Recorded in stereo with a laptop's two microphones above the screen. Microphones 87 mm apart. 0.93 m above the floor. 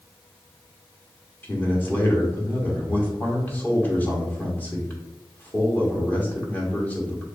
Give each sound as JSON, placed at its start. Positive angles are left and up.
{"t": 1.4, "sound": "a man speaking", "side_deg": 20, "distance_m": 1.8}